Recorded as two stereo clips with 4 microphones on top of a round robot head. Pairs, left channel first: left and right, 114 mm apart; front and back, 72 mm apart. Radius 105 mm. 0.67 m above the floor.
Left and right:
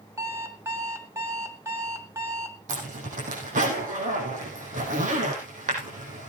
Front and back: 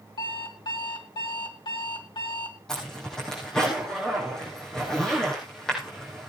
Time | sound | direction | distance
0.2 | an alarm clock | 25° right | 2 m
2.7 | a zipper | 85° right | 5.5 m